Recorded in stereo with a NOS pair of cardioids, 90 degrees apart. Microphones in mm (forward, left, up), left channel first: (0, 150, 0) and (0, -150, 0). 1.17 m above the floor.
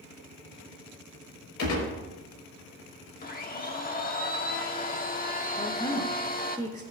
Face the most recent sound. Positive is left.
turn(degrees=10)